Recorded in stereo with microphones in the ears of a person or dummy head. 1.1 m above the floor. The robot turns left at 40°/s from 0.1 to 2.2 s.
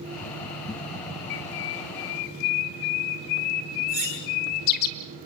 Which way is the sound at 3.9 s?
50° right (ahead or behind).